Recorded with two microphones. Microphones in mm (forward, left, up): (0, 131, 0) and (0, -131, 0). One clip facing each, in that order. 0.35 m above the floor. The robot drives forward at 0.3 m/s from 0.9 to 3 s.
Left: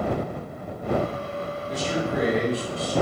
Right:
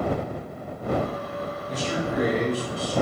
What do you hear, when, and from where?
1.7 s a man speaking: 30° left (ahead or behind), 2.0 m; by 2.9 s 25° left (ahead or behind), 2 m